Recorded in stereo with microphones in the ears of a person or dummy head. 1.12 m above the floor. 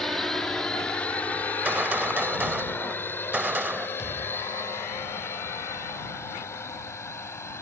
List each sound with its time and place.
0.0 s a drone: 5° left (ahead or behind); by 7.6 s 15° left (ahead or behind)
1.5 s a gunshot: 10° right (ahead or behind)
4.0 s a thud: 15° left (ahead or behind)